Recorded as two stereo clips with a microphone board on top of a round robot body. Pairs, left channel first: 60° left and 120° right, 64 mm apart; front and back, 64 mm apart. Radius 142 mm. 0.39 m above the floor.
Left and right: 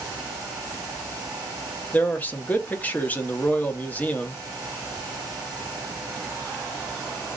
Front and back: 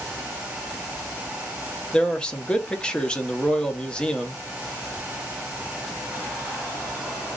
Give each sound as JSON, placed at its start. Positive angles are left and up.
{"t": 1.9, "sound": "a man speaking", "azimuth_deg": 55, "distance_m": 0.8}